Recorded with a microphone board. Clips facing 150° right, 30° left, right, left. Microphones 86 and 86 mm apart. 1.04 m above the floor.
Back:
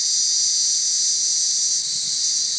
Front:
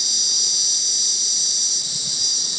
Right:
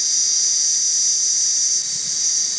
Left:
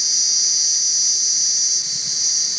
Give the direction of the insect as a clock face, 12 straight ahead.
12 o'clock.